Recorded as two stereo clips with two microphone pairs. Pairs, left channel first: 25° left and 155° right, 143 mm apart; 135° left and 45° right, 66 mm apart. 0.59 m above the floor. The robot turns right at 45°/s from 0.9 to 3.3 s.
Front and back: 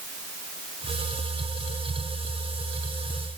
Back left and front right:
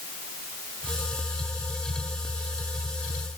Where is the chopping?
I don't hear chopping.